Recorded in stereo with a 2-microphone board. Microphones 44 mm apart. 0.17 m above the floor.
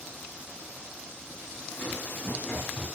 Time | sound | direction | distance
1.7 | running footsteps | 50° left (ahead or behind) | 7 m